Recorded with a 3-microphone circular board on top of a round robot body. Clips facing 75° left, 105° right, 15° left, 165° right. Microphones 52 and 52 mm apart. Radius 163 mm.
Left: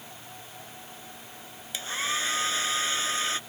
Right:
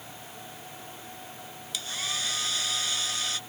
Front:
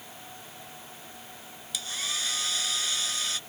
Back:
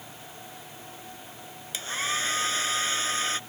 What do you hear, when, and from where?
1.7 s a hair dryer: 135° left